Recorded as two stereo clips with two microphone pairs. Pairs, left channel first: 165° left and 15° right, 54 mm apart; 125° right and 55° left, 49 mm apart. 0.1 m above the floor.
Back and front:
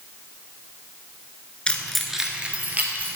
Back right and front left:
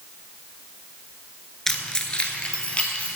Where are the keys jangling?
170° left, 0.8 m; by 3.2 s 65° right, 1.5 m.